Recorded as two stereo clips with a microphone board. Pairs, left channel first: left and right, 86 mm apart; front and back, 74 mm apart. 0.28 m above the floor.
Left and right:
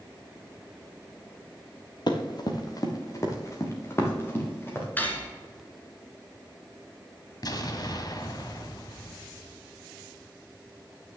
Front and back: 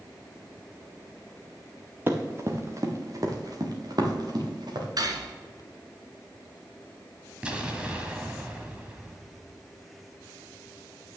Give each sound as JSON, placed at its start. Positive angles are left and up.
{"t": 2.1, "sound": "running footsteps", "azimuth_deg": 120, "distance_m": 1.8}
{"t": 5.0, "sound": "cutlery clinking", "azimuth_deg": 160, "distance_m": 1.9}
{"t": 7.4, "sound": "an explosion", "azimuth_deg": 110, "distance_m": 1.3}